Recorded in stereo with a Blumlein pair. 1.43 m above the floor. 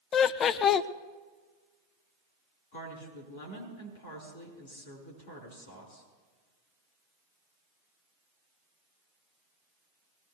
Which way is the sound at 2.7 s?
60° left.